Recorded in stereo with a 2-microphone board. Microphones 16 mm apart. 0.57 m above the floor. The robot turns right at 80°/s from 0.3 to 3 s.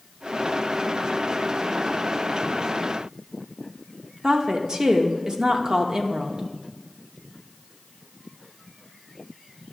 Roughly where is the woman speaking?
Right.